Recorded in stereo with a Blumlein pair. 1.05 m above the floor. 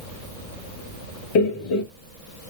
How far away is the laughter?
About 1.2 m.